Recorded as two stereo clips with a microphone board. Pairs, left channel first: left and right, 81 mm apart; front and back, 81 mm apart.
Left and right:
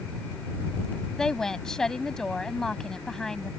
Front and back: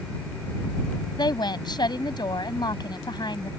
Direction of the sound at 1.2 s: 5° left.